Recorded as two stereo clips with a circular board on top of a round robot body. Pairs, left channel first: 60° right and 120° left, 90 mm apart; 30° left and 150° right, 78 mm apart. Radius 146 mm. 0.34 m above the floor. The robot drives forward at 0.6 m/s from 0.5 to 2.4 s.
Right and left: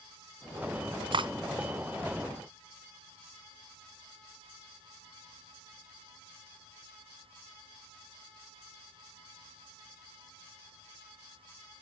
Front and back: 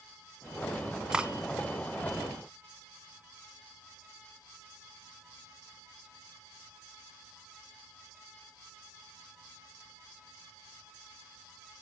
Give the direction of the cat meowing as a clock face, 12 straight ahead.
No cat meowing in this recording.